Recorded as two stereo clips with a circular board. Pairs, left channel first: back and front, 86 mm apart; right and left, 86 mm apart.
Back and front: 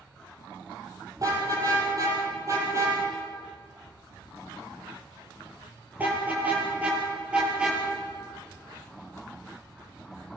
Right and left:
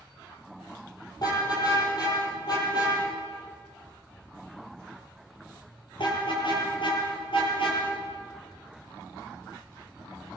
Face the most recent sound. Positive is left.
turn(degrees=-100)